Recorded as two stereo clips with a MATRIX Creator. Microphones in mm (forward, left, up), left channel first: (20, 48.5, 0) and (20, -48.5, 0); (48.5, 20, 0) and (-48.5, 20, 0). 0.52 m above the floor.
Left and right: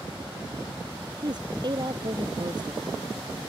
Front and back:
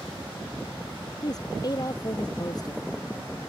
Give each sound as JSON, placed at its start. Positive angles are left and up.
{"t": 1.2, "sound": "a woman speaking", "azimuth_deg": -50}